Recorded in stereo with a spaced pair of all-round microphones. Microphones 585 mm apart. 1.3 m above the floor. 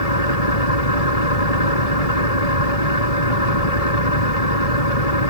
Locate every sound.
0.0 s an engine running: 80° left